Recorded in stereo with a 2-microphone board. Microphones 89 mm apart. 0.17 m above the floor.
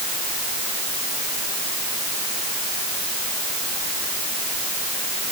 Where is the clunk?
No clunk in this recording.